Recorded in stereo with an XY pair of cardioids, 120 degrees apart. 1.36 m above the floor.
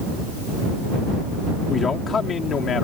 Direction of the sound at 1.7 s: 35° left.